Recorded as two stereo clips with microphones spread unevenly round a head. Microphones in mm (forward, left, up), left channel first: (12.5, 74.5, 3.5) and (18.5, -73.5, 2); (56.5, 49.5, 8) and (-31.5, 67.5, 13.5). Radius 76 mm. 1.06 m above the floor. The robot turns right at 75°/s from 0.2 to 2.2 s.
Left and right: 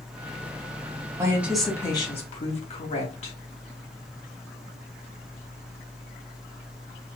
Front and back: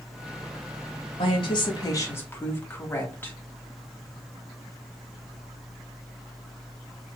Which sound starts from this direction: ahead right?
A woman speaking, at 1.2 s.